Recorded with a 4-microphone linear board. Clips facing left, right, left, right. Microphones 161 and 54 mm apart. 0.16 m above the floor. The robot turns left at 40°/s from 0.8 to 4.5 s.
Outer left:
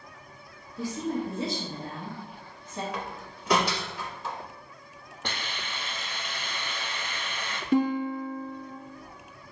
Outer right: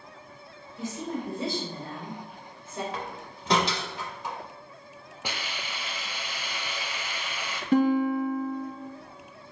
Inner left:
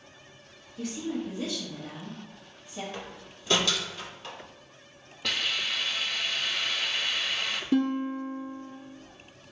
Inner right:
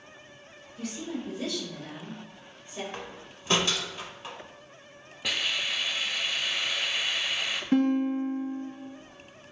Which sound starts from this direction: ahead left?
A woman speaking, at 0.8 s.